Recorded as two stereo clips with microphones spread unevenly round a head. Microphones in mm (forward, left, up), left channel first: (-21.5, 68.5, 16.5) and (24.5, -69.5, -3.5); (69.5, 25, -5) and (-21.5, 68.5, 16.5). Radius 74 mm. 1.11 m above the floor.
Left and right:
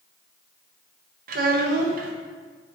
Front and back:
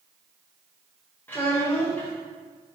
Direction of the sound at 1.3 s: 105° right.